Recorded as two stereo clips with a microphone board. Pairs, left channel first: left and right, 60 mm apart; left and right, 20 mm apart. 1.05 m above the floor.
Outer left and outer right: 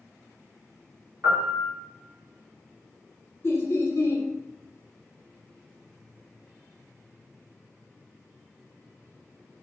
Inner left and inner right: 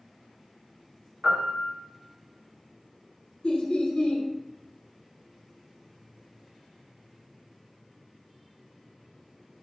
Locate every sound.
1.2 s a piano: 15° right (ahead or behind), 1.5 m
3.4 s laughter: 45° left (ahead or behind), 0.6 m